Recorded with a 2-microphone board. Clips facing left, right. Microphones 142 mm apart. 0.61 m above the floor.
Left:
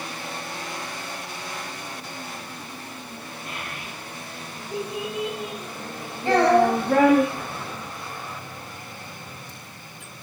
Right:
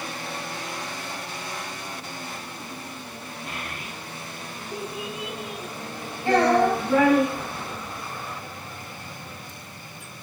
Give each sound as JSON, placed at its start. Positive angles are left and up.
{"t": 3.5, "sound": "a child speaking", "side_deg": 5, "distance_m": 1.9}
{"t": 6.2, "sound": "a child speaking", "side_deg": 10, "distance_m": 2.5}